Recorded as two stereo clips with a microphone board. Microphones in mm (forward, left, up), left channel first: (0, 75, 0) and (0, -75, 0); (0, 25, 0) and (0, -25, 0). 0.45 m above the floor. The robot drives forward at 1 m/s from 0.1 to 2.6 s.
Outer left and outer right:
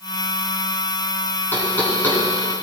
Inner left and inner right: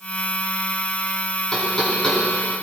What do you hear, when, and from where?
1.5 s knocking: 15° left (ahead or behind), 2.5 m; by 2.2 s 10° left (ahead or behind), 3 m